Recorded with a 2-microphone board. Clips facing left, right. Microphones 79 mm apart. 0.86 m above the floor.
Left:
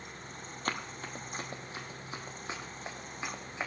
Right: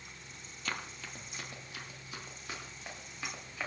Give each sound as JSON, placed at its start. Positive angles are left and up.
{"t": 0.7, "sound": "running footsteps", "side_deg": 45, "distance_m": 1.5}